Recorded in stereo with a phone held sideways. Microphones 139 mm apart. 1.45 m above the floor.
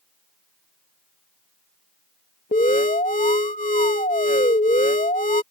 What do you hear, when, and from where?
2.5 s an alarm: 70° left (ahead or behind)